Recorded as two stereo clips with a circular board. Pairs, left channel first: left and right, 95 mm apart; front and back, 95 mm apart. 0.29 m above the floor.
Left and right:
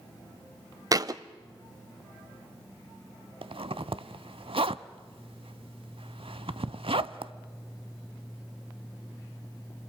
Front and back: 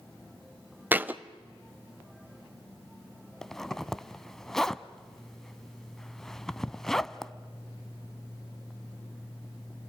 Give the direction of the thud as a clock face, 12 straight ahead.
4 o'clock.